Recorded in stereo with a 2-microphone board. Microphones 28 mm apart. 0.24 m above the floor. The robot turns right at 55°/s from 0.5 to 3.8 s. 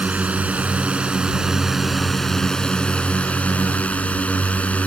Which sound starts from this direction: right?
A drone, at 0.0 s.